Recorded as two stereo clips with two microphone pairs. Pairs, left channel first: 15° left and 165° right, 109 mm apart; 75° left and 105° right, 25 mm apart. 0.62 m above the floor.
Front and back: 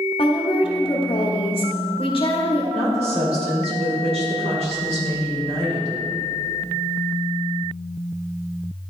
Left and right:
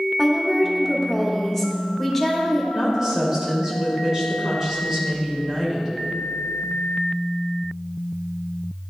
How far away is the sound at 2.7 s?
About 2.5 m.